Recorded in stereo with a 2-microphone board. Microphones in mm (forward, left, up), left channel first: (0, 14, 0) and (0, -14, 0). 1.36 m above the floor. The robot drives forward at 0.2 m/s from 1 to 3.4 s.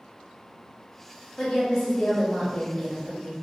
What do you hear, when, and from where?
1.4 s a woman speaking: 25° left (ahead or behind), 0.9 m; by 3.3 s 40° left (ahead or behind), 0.6 m